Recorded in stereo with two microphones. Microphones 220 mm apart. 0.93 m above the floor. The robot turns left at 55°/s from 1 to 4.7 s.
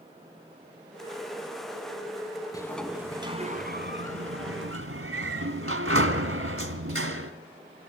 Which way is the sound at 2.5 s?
15° left.